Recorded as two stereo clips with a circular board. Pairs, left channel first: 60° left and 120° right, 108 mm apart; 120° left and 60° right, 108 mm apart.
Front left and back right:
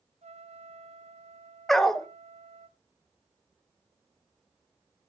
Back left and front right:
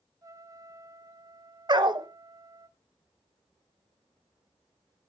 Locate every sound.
0.2 s a trumpet: 120° right, 0.8 m
1.7 s a dog barking: 25° right, 0.9 m